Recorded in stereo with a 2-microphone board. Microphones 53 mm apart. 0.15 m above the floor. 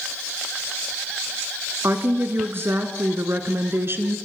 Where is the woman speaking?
45° right (ahead or behind), 2 m.